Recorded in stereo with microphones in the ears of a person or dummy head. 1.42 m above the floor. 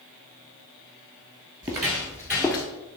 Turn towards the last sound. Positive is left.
turn(degrees=5)  # may be behind; listen again after turning